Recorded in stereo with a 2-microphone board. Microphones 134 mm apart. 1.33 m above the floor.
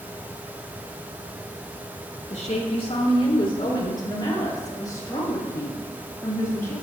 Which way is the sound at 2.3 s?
60° left (ahead or behind).